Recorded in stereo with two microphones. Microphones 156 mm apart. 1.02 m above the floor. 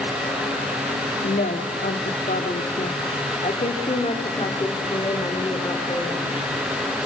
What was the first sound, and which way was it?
A woman speaking, 80° left.